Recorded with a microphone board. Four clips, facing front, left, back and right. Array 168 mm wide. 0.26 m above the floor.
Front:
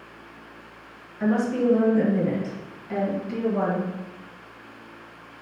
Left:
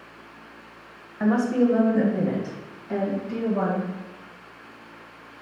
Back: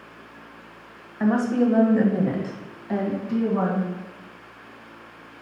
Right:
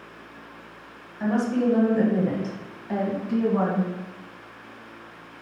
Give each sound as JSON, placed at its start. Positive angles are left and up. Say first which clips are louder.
{"t": 1.2, "sound": "a woman speaking", "louder": "left 2 dB, back 2 dB", "azimuth_deg": 150, "distance_m": 1.9}